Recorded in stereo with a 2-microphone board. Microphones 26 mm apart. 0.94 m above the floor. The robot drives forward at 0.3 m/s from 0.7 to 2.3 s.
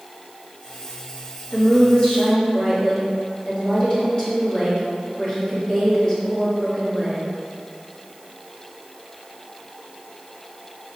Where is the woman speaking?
45° left (ahead or behind), 1.6 m; by 7.2 s 40° left (ahead or behind), 1.8 m.